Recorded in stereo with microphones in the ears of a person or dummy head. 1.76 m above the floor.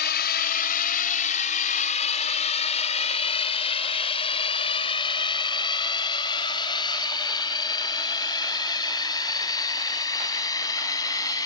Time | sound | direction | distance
0.0 | a drone | 45° left (ahead or behind) | ?